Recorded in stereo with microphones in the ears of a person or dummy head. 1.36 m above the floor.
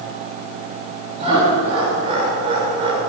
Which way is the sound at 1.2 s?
30° right (ahead or behind).